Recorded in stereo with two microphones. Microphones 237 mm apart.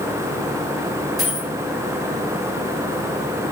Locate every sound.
1.2 s a dropped coin: centre (ahead or behind), 3 m